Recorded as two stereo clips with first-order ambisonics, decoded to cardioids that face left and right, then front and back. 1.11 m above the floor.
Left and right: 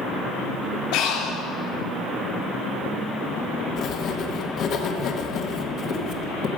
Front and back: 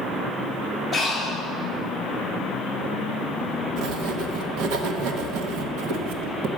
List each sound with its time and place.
0.9 s breathing: 95° left, 2.5 m
3.8 s writing: 145° left, 1.0 m